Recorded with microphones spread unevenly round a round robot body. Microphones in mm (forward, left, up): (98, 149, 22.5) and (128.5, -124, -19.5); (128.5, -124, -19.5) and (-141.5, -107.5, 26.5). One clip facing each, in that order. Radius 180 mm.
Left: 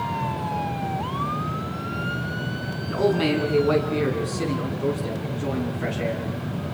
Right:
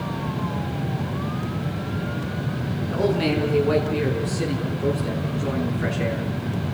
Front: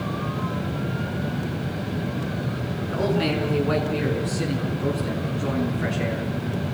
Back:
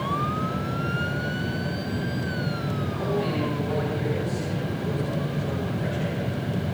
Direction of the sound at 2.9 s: 30° left.